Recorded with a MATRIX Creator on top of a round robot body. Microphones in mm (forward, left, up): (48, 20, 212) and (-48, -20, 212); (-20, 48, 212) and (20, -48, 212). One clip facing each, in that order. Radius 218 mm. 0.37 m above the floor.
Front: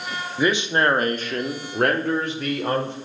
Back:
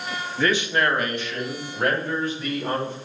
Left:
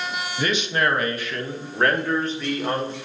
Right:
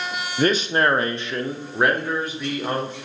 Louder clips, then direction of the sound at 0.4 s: Front 2 dB, right 4 dB; 50° right.